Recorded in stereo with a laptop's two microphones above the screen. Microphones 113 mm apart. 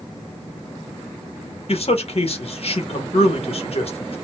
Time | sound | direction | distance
1.7 | a man speaking | 55° left (ahead or behind) | 1.2 m